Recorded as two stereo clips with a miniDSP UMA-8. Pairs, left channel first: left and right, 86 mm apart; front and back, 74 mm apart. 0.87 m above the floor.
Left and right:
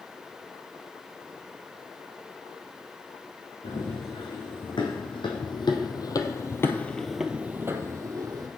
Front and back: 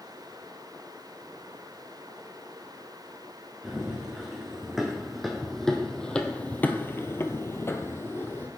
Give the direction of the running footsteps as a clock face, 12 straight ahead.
9 o'clock.